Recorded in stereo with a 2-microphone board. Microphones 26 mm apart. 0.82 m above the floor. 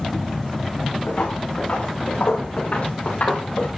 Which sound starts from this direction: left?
Footsteps, at 1.1 s.